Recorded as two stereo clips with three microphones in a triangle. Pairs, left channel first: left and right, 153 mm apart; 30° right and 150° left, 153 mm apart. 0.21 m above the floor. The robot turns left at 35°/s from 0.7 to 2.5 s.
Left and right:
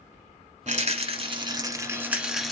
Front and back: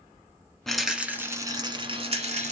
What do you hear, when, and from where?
0.7 s a rattle: 115° right, 1.3 m; by 2.5 s straight behind, 1.3 m